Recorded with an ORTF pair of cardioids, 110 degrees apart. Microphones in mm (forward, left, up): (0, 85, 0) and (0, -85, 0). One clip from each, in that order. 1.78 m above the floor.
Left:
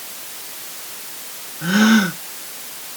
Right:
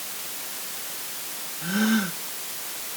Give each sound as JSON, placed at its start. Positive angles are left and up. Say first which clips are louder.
{"t": 1.6, "sound": "a gasp", "louder": "left 9 dB", "azimuth_deg": 55}